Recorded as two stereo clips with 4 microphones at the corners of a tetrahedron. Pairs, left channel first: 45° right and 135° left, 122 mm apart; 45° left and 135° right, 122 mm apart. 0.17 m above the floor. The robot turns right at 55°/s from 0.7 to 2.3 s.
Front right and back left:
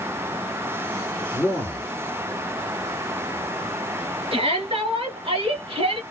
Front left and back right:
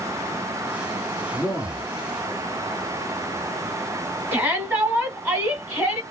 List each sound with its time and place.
1.3 s a man speaking: 115° right, 1.9 m; by 1.9 s 85° right, 1.9 m
4.3 s a shout: 155° left, 1.6 m